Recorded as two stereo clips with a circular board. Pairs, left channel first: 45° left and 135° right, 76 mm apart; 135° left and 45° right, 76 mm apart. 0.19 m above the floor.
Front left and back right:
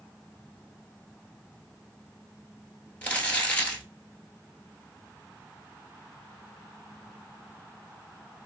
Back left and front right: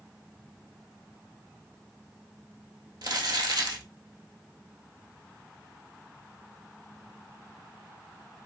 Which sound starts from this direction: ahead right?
Crumpling, at 3.0 s.